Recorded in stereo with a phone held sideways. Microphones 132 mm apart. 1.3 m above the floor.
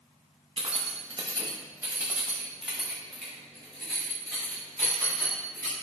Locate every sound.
0.6 s keys jangling: 45° right (ahead or behind), 0.7 m; by 5.7 s 15° left (ahead or behind), 2.5 m